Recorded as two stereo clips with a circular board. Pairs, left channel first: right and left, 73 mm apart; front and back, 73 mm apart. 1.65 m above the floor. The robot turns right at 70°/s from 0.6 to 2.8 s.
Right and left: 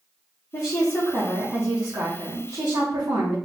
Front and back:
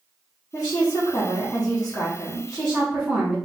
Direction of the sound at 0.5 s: 40° right.